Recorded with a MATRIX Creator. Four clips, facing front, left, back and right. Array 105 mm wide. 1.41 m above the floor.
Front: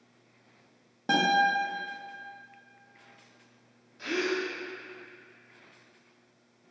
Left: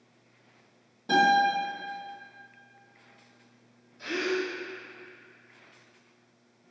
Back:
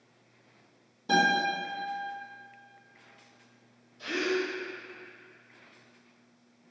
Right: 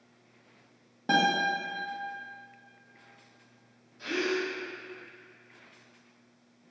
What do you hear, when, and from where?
1.1 s a guitar: 35° right, 1.5 m
4.0 s a gasp: 5° left, 1.2 m